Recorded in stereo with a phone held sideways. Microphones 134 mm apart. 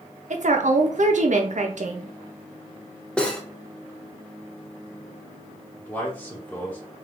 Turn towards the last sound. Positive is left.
turn(degrees=10)  # may be behind; listen again after turning